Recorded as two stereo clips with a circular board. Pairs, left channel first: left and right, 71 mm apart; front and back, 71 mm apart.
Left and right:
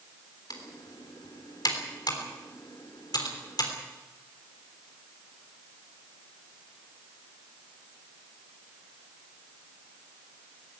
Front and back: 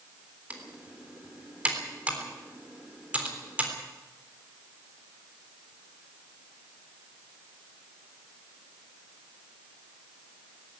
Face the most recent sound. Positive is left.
turn(degrees=110)